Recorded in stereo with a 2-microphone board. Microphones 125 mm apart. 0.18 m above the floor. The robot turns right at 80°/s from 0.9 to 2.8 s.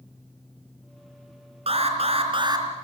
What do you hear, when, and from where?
1.7 s an alarm: 110° right, 3.5 m; by 2.7 s 30° right, 3.5 m